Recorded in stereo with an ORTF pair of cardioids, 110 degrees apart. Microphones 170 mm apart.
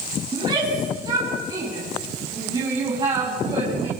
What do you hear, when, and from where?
0.3 s a shout: 25° right, 10 m